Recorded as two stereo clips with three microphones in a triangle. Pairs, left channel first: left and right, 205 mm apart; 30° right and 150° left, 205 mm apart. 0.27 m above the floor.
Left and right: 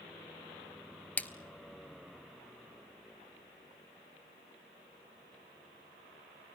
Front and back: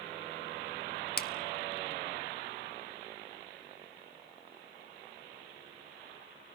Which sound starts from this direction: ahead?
A splash, at 1.2 s.